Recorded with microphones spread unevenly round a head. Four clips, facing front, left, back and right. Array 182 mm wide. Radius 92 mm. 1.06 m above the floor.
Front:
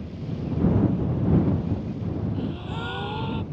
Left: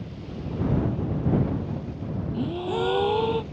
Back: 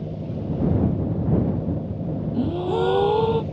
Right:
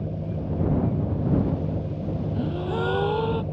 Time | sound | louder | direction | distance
0.0 | an engine running | right 5 dB, back 3 dB | 140° right | ?
2.3 | a gasp | left 2 dB, back 9 dB | 175° left | ?